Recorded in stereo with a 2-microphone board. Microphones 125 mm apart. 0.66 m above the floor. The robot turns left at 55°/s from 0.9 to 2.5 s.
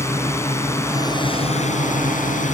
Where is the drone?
160° left; by 2.5 s 70° left.